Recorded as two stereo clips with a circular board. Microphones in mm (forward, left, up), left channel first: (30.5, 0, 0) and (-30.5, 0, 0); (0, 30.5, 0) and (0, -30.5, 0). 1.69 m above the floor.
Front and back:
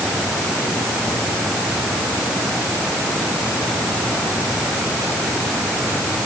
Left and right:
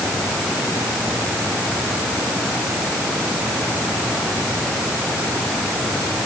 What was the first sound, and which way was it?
Only background noise.